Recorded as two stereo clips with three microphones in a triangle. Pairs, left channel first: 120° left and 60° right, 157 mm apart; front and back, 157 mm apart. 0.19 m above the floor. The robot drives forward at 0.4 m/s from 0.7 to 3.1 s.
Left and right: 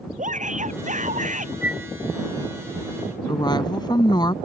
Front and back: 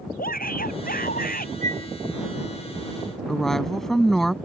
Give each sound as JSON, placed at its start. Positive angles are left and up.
{"t": 0.2, "sound": "a shout", "azimuth_deg": -20}
{"t": 1.6, "sound": "a flute", "azimuth_deg": -140}
{"t": 3.3, "sound": "a woman speaking", "azimuth_deg": 85}